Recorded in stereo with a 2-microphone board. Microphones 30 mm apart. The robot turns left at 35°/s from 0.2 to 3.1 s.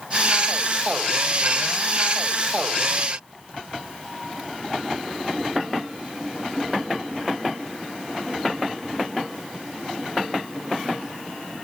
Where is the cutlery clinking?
I don't hear cutlery clinking.